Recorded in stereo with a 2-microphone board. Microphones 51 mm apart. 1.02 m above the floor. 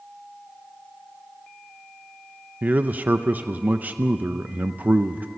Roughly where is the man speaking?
Right.